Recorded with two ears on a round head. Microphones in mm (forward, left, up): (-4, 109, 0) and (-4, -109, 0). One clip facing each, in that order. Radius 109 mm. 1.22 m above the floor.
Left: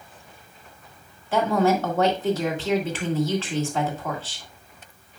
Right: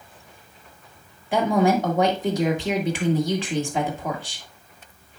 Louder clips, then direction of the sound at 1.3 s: Right 1 dB; 15° right (ahead or behind).